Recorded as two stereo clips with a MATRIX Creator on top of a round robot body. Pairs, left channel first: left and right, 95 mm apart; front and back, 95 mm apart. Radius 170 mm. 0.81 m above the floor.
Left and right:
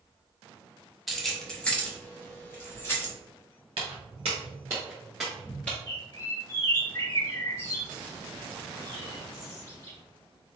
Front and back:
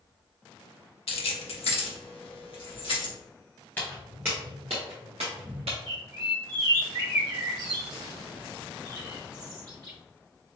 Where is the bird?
140° left, 2 m.